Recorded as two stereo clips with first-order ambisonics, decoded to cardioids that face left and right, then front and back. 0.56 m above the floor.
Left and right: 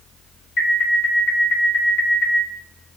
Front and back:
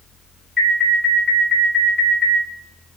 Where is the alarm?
80° left, 0.9 m.